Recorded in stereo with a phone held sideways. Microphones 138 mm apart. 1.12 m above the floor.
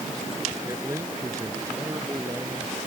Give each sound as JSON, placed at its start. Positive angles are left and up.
{"t": 0.7, "sound": "a man speaking", "side_deg": -20}